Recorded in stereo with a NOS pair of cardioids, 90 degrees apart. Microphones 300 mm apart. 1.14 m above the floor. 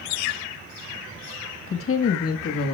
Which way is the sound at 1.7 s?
40° left.